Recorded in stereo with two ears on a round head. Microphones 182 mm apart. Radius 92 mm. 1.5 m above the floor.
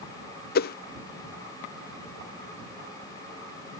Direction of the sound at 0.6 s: 50° left (ahead or behind).